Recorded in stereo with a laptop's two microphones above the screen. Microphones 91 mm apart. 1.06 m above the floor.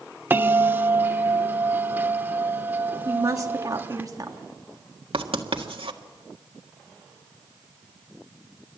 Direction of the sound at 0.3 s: 25° right (ahead or behind).